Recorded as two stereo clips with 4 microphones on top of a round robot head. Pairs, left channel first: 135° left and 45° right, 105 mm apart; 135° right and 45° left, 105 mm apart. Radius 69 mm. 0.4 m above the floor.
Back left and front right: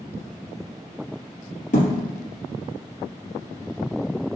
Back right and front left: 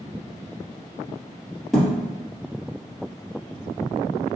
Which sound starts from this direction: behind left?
A thud, at 1.7 s.